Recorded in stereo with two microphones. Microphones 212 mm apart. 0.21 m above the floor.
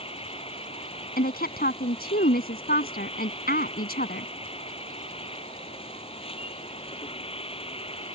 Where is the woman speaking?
45° left (ahead or behind).